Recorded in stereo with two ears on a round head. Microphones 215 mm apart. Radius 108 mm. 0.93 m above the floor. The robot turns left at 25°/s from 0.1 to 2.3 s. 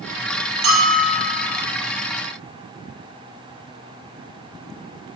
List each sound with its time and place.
0.6 s a bell: 65° right (ahead or behind), 7 m; by 1.5 s 45° right (ahead or behind), 7 m